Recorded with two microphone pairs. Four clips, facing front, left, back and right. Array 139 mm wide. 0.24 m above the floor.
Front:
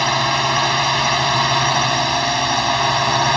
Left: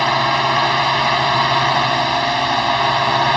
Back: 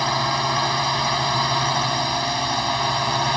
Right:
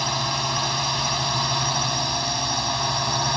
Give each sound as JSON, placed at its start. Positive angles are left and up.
{"t": 0.0, "sound": "a drone", "azimuth_deg": 70}